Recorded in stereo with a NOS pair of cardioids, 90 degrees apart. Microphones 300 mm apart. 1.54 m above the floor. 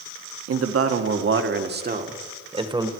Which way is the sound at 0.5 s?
55° right.